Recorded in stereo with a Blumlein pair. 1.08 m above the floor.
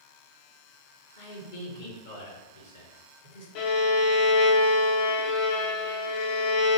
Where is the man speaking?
55° left, 1.6 m.